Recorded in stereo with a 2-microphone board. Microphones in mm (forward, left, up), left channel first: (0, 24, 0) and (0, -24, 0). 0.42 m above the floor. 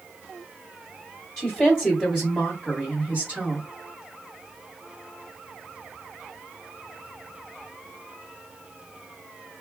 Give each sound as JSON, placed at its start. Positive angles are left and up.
{"t": 1.4, "sound": "a woman speaking", "side_deg": 15, "distance_m": 1.4}